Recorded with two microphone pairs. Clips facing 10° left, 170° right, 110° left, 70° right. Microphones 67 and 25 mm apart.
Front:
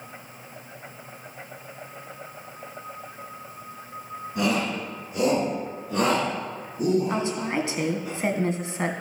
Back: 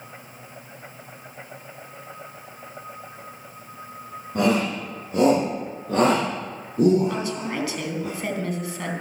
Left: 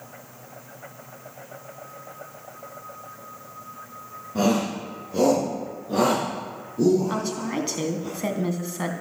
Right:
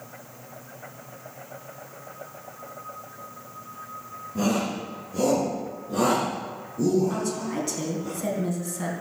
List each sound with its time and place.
4.3 s a shout: 150° left, 8.5 m; by 8.1 s straight behind, 7.5 m
7.1 s a woman speaking: 65° left, 2.5 m